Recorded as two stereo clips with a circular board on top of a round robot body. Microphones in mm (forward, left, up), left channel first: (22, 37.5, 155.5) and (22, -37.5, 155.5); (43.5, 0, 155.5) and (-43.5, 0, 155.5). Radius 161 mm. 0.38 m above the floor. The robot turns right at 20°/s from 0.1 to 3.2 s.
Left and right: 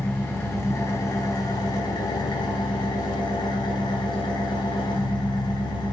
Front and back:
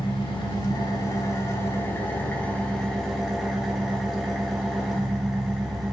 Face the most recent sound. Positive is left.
turn(degrees=90)